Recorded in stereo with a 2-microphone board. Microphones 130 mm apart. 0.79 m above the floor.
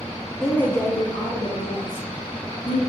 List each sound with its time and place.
0.4 s a woman speaking: 5° left (ahead or behind), 0.5 m; by 2.8 s 50° left (ahead or behind), 1.2 m